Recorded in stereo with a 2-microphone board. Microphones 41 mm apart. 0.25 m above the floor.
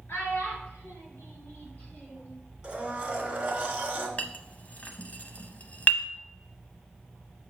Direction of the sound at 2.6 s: 20° right (ahead or behind).